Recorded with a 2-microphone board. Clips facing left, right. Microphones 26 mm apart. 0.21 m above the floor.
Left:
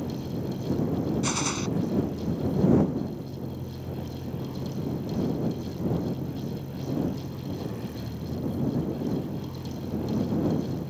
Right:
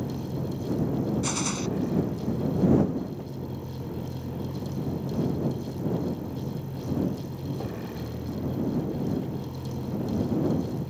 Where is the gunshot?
10° left (ahead or behind).